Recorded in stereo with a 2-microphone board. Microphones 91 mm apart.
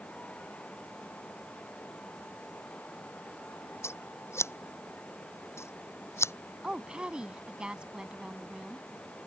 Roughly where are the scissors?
Left.